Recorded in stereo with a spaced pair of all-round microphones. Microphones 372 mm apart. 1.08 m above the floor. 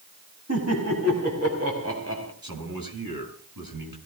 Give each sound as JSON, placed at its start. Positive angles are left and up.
{"t": 0.5, "sound": "laughter", "side_deg": -45, "distance_m": 6.5}
{"t": 2.4, "sound": "a man speaking", "side_deg": -70, "distance_m": 7.5}